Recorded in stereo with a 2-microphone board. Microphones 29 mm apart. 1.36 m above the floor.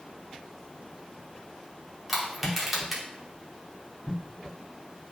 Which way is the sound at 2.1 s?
5° right (ahead or behind).